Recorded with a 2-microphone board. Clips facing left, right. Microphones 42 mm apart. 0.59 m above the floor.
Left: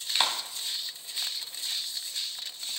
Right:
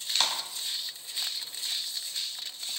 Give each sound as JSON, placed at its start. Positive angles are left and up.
{"t": 0.1, "sound": "a clap", "side_deg": 15, "distance_m": 2.5}